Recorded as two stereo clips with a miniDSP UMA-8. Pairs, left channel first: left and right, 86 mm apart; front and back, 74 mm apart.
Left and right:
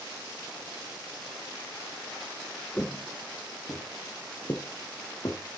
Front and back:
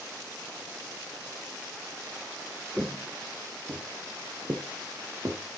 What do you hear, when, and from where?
2.8 s footsteps: 130° left, 0.8 m; by 5.4 s 135° left, 2.5 m